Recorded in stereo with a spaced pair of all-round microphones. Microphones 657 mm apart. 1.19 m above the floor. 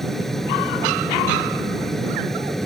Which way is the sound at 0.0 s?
Centre (ahead or behind).